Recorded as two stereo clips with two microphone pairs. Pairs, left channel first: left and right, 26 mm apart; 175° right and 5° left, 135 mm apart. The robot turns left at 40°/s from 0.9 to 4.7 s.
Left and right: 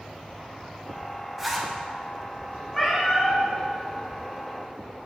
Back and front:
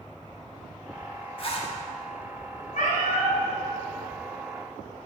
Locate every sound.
1.4 s a zipper: 160° right, 0.9 m; by 1.7 s 170° right, 0.9 m
2.7 s a cat meowing: 175° right, 2.5 m; by 3.4 s 160° left, 2.5 m